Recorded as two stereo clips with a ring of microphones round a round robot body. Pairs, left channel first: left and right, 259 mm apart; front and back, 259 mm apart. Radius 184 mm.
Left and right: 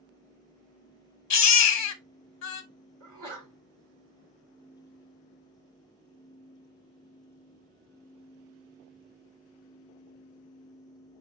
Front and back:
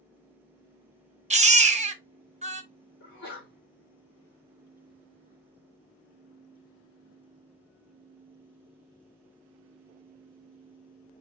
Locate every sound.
1.3 s a baby crying: 110° left, 0.8 m
3.0 s a sneeze: 30° right, 2.5 m